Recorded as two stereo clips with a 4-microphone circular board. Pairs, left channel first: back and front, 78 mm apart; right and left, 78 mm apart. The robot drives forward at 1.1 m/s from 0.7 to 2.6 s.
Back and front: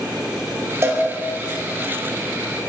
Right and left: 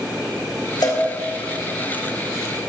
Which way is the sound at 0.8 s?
55° right.